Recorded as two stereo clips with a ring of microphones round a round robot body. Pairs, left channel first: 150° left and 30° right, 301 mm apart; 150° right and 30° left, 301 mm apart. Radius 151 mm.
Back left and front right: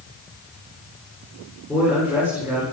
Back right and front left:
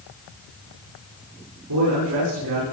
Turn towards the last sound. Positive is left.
turn(degrees=55)